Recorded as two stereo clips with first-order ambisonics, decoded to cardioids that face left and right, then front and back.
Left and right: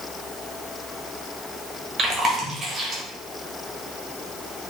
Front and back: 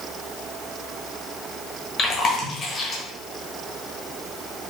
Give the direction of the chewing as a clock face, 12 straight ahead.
1 o'clock.